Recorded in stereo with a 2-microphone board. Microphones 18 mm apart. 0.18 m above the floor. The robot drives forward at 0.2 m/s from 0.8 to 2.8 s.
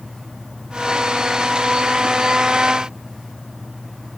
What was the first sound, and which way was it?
Only background noise.